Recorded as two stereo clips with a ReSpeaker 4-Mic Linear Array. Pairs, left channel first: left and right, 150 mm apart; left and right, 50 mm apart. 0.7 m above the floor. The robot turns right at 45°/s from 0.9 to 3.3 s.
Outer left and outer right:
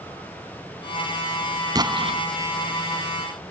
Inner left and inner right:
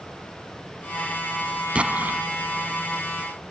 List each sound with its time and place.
1.8 s an explosion: 30° right (ahead or behind); by 2.2 s 50° right (ahead or behind)